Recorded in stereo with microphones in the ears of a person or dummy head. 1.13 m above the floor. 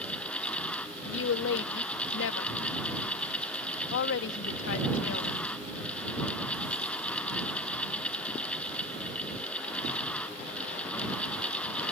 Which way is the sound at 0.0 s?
5° left (ahead or behind).